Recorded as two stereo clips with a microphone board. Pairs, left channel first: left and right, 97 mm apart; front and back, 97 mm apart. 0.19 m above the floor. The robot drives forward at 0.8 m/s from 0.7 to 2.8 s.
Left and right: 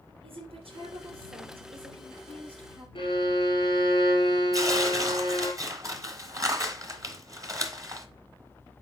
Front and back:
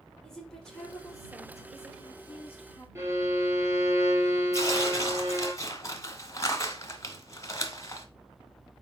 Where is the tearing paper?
50° right, 1.2 m.